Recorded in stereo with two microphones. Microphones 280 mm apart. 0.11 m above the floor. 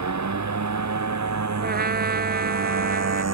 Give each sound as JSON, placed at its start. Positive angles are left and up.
{"t": 0.0, "sound": "a motorcycle", "side_deg": -80}
{"t": 1.6, "sound": "a trumpet", "side_deg": -35}